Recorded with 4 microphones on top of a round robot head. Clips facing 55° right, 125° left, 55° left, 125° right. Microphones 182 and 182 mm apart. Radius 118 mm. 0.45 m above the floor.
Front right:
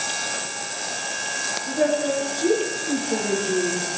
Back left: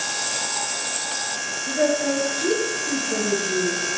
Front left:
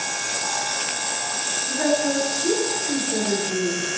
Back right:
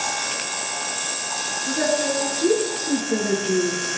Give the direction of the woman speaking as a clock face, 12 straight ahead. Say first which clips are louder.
Even, front left 1 dB; 5 o'clock.